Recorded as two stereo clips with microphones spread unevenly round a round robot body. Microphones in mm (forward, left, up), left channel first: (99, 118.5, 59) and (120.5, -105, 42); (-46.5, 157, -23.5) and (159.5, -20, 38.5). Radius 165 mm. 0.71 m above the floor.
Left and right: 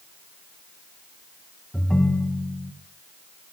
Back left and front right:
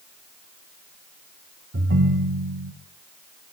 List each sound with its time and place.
1.7 s a ringtone: 10° left, 2.5 m